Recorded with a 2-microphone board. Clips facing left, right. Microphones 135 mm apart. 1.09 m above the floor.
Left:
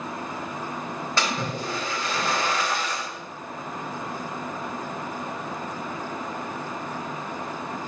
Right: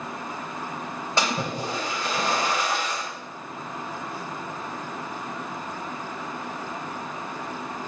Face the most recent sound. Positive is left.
turn(degrees=-20)  # may be behind; listen again after turning